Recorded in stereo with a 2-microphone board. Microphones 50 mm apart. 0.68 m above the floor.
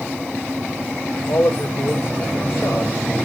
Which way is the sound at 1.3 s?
50° left (ahead or behind).